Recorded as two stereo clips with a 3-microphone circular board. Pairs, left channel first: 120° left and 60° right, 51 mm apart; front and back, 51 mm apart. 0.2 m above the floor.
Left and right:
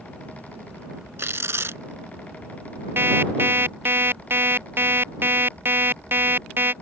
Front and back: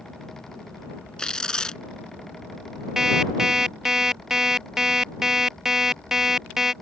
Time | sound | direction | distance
1.2 | tearing paper | 75° right | ?
3.0 | an alarm clock | 100° right | ?